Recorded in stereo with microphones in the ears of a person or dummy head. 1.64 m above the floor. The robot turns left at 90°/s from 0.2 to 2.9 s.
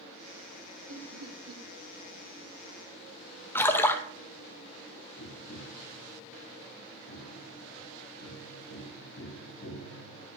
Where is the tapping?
75° left (ahead or behind), 1.9 m.